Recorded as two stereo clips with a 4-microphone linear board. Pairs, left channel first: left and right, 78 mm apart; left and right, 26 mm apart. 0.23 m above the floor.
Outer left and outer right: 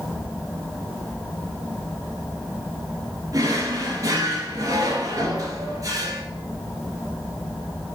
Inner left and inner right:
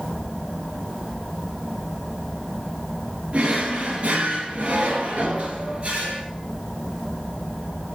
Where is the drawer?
50° right (ahead or behind), 2 m.